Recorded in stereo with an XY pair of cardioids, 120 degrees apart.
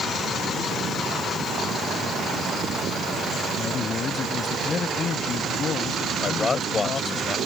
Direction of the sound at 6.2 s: 35° left.